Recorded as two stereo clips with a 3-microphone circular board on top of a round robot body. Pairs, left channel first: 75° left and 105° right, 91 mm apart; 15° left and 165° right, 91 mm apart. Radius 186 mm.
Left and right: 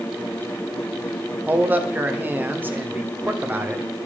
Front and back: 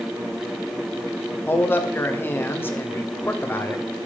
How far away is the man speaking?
About 1.8 m.